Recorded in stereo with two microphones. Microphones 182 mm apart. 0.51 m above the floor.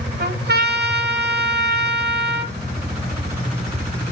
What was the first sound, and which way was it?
A trumpet, 70° right (ahead or behind).